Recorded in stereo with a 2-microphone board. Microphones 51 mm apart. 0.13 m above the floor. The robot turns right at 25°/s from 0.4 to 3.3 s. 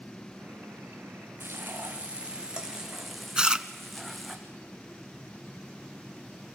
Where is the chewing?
15° right (ahead or behind), 0.6 m.